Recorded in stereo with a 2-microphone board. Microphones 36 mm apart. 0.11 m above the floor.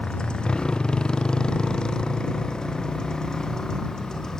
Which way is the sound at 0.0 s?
25° left (ahead or behind).